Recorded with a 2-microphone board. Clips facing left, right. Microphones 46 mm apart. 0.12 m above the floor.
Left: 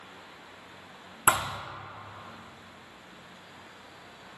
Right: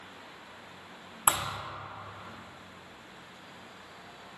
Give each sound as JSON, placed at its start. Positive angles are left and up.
{"t": 1.3, "sound": "a thud", "side_deg": 55, "distance_m": 0.6}